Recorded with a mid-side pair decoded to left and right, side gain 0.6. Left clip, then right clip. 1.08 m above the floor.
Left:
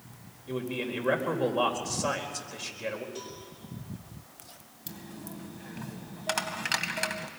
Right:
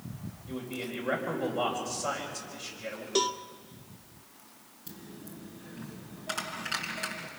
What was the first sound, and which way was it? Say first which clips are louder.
A man speaking: left 5 dB; 45° left.